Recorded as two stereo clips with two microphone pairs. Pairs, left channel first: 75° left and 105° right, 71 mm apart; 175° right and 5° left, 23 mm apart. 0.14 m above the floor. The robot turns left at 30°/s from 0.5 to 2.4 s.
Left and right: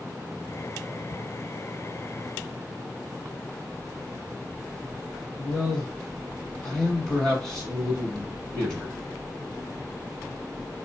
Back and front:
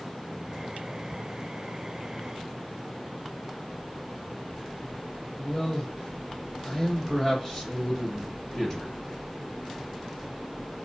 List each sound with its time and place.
5.4 s a man speaking: 145° left, 1.6 m